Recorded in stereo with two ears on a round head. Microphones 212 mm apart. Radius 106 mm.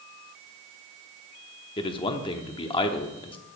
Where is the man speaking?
20° left (ahead or behind), 0.8 m.